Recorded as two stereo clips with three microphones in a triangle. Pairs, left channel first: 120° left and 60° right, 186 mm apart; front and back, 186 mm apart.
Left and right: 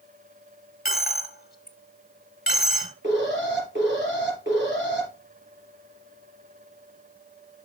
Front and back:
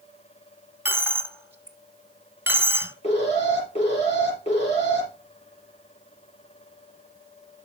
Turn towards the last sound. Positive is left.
turn(degrees=-55)